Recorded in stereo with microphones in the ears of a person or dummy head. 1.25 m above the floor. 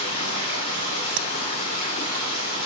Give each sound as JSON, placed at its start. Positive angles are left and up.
{"t": 0.0, "sound": "running water", "side_deg": 45, "distance_m": 2.0}
{"t": 1.2, "sound": "tapping", "side_deg": -65, "distance_m": 0.7}